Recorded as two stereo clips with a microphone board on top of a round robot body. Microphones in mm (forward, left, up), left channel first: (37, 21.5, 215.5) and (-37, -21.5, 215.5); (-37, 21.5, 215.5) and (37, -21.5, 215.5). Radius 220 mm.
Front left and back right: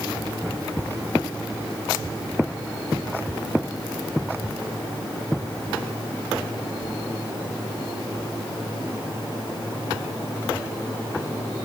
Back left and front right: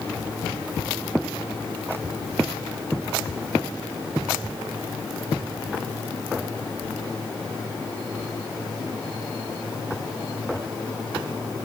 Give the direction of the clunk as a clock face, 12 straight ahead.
No clunk in this recording.